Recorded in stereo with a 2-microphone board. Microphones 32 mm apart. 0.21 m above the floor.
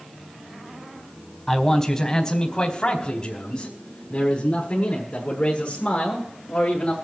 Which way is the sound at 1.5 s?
10° left (ahead or behind).